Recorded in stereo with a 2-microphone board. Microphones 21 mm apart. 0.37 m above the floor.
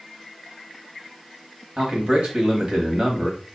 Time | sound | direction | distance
1.8 | a man speaking | 40° right (ahead or behind) | 1.7 m